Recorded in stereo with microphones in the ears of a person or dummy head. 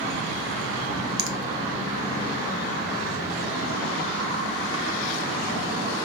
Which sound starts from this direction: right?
A finger snap, at 1.2 s.